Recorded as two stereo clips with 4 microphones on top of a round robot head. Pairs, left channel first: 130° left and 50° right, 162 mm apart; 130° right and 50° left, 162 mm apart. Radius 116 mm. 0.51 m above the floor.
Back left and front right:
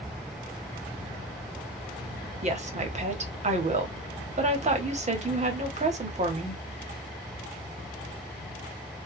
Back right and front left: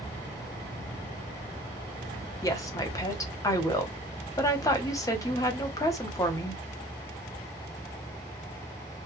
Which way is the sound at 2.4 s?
70° right.